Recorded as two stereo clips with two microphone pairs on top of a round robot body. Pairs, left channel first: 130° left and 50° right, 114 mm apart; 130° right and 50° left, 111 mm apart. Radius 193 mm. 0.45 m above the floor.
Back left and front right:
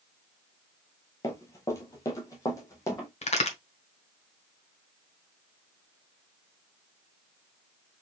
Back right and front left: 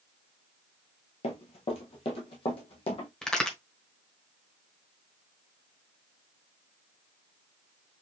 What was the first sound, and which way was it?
Running footsteps, 165° right.